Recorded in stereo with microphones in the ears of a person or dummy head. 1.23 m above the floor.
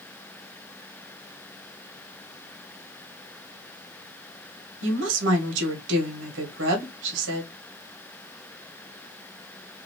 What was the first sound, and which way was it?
A woman speaking, 70° right (ahead or behind).